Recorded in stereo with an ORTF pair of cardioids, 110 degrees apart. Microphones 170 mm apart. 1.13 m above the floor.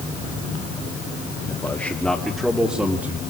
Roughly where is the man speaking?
Ahead.